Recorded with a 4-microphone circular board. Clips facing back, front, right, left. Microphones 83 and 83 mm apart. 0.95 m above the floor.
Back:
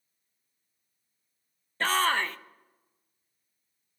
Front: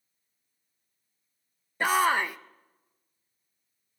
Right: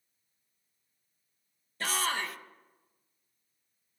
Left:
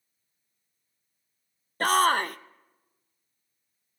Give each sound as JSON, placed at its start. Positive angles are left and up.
{"t": 1.8, "sound": "a shout", "azimuth_deg": 75, "distance_m": 0.7}